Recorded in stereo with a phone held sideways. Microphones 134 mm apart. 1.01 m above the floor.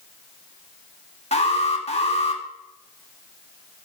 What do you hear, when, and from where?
1.3 s an alarm: 50° left (ahead or behind), 1.6 m